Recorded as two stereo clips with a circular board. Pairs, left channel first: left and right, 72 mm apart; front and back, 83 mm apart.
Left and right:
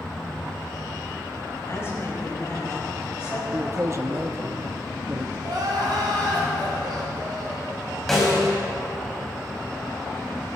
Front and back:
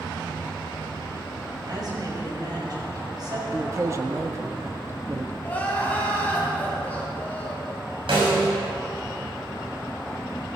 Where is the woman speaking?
140° left, 5 m.